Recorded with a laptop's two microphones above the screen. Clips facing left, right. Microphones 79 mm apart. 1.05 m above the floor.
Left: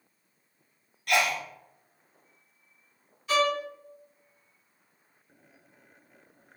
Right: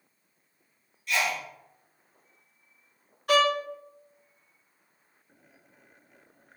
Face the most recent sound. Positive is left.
turn(degrees=-55)  # may be behind; listen again after turning